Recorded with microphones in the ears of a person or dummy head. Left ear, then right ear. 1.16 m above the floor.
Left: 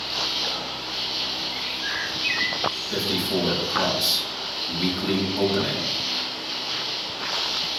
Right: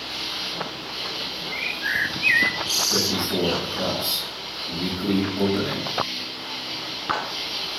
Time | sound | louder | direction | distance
0.0 | an insect | left 3 dB | 15° left (ahead or behind) | 2.5 m
1.5 | a bird | right 3 dB | 80° right | 0.6 m
2.9 | a man speaking | right 1 dB | 55° left (ahead or behind) | 5.5 m